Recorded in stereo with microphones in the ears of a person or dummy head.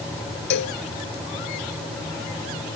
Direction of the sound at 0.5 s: 60° left (ahead or behind).